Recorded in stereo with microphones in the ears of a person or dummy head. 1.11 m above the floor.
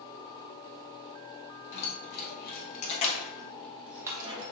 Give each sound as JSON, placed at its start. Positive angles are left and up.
{"t": 1.7, "sound": "keys jangling", "side_deg": 65, "distance_m": 1.1}